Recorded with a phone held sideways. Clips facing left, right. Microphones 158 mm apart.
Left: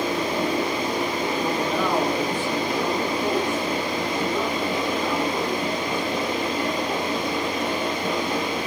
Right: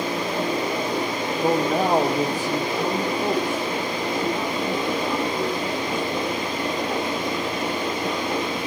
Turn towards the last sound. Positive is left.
turn(degrees=-30)  # may be behind; listen again after turning